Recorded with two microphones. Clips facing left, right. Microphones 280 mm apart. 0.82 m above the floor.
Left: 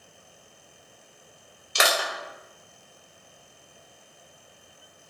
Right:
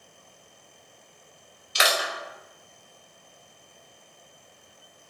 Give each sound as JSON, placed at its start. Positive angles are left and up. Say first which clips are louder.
{"t": 1.8, "sound": "crushing", "louder": "left 1 dB", "side_deg": 55, "distance_m": 0.6}